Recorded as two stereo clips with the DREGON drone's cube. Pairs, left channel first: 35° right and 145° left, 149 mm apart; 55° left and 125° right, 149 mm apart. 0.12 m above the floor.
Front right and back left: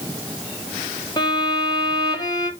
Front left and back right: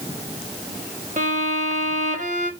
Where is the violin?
100° right, 5 m.